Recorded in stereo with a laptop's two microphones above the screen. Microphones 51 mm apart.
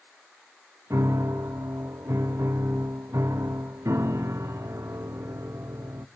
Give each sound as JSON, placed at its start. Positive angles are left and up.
{"t": 0.9, "sound": "a piano", "side_deg": -70, "distance_m": 0.6}